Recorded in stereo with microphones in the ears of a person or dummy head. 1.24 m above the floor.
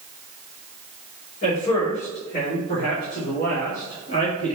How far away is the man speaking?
About 3.5 m.